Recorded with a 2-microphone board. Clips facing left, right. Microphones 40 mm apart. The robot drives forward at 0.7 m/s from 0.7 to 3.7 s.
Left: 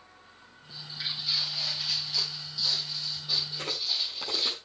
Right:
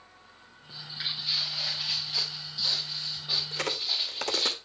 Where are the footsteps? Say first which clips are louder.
Right 1 dB; 20° right (ahead or behind), 5 m; by 4.5 s 35° right (ahead or behind), 6 m.